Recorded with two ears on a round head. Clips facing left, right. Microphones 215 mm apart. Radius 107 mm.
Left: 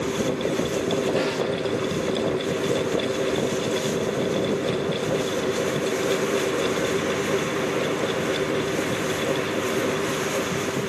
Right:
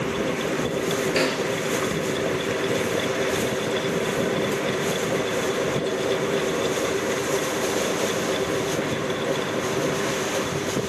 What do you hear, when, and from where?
1.2 s a snare drum: 40° right (ahead or behind), 2.0 m